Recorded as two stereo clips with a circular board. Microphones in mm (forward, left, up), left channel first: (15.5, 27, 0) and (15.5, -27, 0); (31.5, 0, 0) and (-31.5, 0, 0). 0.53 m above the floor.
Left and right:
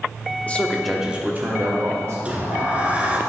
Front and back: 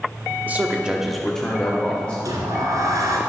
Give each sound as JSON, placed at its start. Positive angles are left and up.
{"t": 0.5, "sound": "a man speaking", "azimuth_deg": 135, "distance_m": 1.2}
{"t": 2.2, "sound": "a sliding door", "azimuth_deg": -155, "distance_m": 1.6}